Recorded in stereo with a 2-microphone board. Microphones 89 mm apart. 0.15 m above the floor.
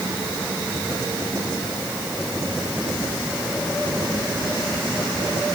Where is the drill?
No drill in this recording.